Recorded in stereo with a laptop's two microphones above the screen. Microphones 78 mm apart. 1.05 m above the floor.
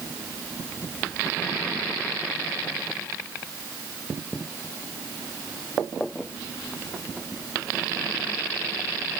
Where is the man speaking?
I don't hear a man speaking.